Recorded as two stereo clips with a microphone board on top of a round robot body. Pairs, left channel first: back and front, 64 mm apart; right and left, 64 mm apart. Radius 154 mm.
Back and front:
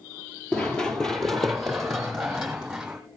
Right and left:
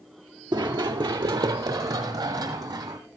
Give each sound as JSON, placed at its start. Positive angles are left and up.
{"t": 0.5, "sound": "running footsteps", "azimuth_deg": 105, "distance_m": 0.8}